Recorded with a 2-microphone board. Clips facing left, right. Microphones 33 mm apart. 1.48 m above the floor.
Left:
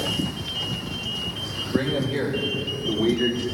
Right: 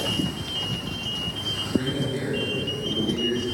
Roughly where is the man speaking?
Left.